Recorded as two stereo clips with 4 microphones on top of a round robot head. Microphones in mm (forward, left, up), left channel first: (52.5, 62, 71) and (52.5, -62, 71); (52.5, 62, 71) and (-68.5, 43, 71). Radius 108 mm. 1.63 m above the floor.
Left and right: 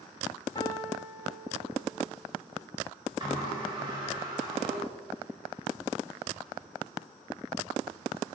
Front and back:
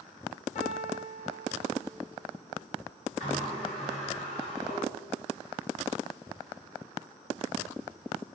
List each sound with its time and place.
0.6 s a piano: 35° left, 1.1 m
3.2 s a sliding door: 40° right, 4 m